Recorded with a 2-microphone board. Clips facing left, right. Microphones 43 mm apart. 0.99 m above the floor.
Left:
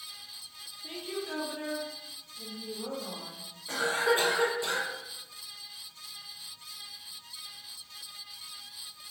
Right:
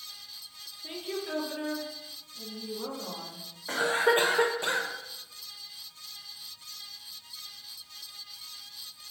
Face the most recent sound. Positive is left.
turn(degrees=-40)  # may be behind; listen again after turning